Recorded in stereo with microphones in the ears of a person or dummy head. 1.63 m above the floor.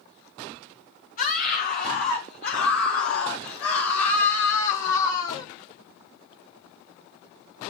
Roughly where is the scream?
Left.